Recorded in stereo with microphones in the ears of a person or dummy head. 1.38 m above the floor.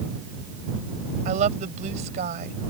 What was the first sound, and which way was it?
A woman speaking, 40° right (ahead or behind).